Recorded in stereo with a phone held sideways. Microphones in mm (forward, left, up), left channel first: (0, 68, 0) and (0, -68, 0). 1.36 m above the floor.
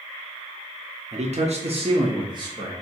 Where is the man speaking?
60° right (ahead or behind), 0.7 m; by 2.7 s 30° right (ahead or behind), 1.1 m.